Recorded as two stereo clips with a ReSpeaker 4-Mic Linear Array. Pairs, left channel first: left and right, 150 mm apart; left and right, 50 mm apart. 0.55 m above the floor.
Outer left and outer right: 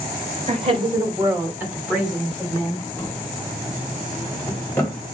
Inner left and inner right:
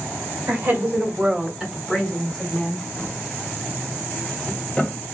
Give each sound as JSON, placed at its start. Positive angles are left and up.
{"t": 0.5, "sound": "a woman speaking", "side_deg": -45, "distance_m": 1.6}
{"t": 3.0, "sound": "a drawer", "side_deg": 15, "distance_m": 1.4}